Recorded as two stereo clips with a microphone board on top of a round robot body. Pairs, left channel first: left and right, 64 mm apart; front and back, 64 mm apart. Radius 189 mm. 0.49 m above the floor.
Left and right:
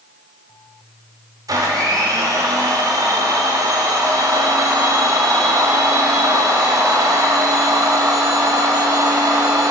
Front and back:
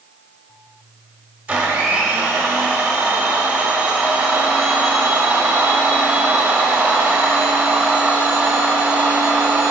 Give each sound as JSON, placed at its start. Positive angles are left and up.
{"t": 1.5, "sound": "a blender", "azimuth_deg": -115, "distance_m": 1.5}